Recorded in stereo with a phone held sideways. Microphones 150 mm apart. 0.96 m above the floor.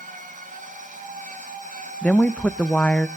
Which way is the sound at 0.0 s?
55° right (ahead or behind).